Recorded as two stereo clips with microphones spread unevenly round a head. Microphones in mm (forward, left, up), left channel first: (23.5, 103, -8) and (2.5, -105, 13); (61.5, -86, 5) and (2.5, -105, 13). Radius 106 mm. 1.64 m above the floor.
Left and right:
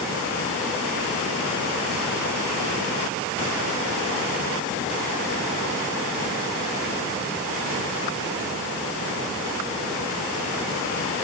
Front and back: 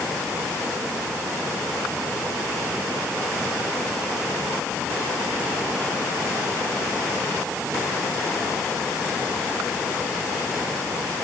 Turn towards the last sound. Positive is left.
No sound to turn to.